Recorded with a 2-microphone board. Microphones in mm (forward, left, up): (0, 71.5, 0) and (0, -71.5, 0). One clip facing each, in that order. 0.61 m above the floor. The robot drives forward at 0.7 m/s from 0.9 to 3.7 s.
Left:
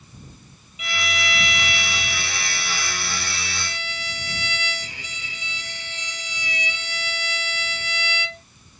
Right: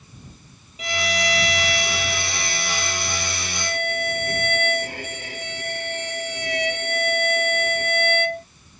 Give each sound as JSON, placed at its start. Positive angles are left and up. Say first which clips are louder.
{"t": 0.8, "sound": "a violin", "louder": "right 5 dB", "side_deg": -40}